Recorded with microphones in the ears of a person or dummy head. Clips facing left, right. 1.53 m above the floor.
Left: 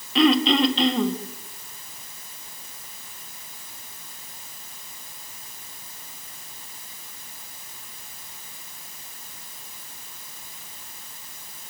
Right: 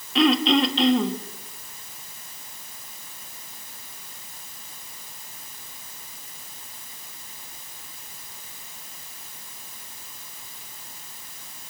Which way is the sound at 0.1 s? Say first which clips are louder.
Left 1 dB; centre (ahead or behind).